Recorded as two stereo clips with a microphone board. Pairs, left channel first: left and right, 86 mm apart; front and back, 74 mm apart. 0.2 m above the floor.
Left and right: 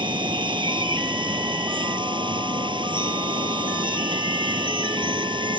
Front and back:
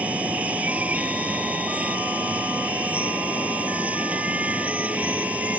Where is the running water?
110° right.